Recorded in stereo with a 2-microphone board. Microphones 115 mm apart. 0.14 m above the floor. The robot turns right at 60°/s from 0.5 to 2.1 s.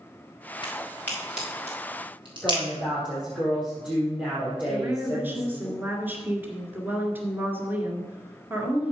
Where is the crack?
40° left (ahead or behind), 4 m; by 2.6 s 45° right (ahead or behind), 4 m.